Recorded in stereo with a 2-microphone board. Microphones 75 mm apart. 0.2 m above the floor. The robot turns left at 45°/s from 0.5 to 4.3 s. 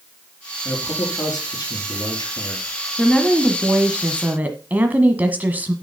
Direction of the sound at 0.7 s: 150° left.